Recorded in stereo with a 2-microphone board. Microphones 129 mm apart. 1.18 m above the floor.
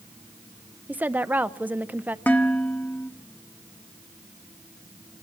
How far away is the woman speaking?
About 0.6 m.